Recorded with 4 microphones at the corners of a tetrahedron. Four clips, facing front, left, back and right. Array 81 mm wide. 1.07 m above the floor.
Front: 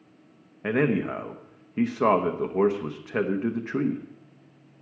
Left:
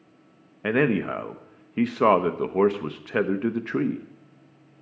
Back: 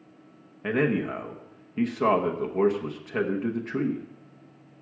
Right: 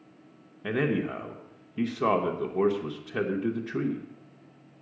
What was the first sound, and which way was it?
A man speaking, 75° left.